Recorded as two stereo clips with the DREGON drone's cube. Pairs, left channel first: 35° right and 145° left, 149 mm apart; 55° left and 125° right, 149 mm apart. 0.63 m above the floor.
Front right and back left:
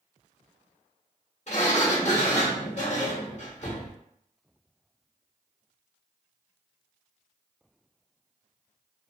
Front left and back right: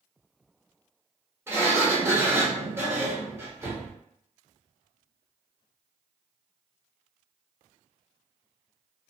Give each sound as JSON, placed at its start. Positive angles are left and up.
{"t": 1.5, "sound": "a sliding door", "azimuth_deg": -55, "distance_m": 1.2}